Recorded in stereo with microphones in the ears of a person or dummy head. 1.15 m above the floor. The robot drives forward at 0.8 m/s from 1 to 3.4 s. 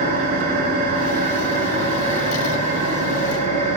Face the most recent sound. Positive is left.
turn(degrees=-30)  # may be behind; listen again after turning